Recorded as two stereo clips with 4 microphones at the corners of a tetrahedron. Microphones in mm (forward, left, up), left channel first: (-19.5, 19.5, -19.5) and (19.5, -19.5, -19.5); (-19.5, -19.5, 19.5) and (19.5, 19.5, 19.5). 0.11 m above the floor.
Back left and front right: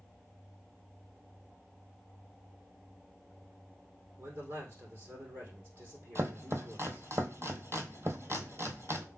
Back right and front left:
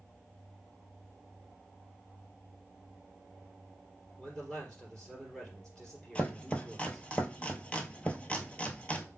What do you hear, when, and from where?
4.2 s a man speaking: 55° right, 3 m
6.2 s chopping: 70° right, 0.7 m